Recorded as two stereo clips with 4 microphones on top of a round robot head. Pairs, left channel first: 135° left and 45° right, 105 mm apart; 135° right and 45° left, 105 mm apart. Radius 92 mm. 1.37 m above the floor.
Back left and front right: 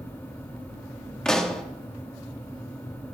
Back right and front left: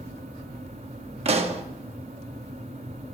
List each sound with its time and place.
1.2 s a pop: 50° left, 0.8 m